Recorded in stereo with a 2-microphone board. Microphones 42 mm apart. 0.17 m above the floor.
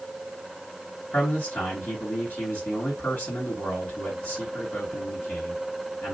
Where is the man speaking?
55° left (ahead or behind), 3 m.